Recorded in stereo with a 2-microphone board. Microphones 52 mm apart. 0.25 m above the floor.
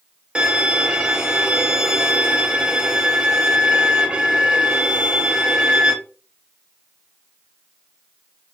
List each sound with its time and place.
0.3 s a violin: 20° right (ahead or behind), 0.7 m